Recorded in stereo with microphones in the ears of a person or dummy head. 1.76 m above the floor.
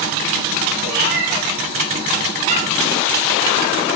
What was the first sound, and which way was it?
A cat meowing, 55° right (ahead or behind).